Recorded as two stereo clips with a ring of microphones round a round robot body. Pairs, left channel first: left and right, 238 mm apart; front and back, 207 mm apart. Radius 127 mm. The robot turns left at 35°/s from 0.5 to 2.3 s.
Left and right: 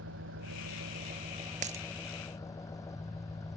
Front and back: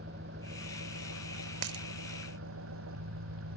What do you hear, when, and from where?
0.0 s an engine running: 130° right; by 3.6 s 165° left
1.6 s a dropped coin: 150° right; by 1.9 s 155° right